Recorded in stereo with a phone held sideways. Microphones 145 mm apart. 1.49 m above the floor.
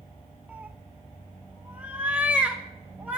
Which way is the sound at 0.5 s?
10° right (ahead or behind).